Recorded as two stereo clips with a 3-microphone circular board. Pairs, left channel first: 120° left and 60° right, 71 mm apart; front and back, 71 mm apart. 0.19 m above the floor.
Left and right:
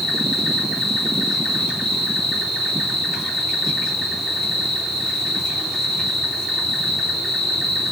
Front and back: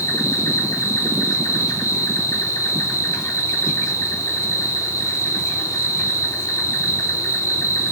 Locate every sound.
0.0 s an insect: 35° left, 3 m